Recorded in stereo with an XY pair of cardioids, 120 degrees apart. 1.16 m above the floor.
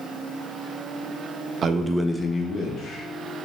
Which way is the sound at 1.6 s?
50° right.